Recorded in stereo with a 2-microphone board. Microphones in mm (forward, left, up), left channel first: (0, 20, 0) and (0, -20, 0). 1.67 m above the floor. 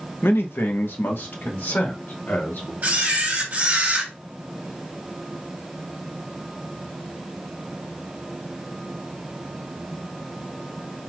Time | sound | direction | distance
0.2 | a man speaking | 65° left (ahead or behind) | 0.6 m
2.8 | a camera shutter | 40° right (ahead or behind) | 1.6 m